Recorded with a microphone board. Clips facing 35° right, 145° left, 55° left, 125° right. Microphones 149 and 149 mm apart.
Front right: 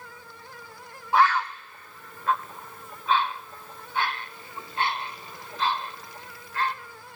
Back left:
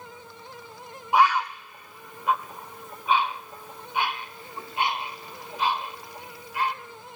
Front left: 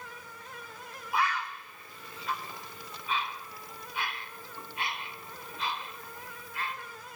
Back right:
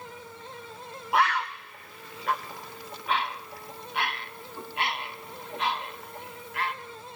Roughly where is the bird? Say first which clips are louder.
Back left 1 dB, back right 5 dB; behind right.